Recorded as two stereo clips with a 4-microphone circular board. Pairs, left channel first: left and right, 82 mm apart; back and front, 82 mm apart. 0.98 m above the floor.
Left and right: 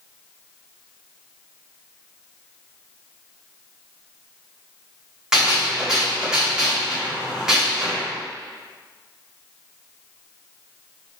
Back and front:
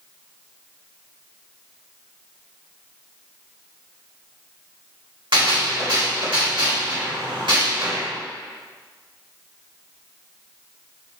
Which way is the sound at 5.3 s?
5° right.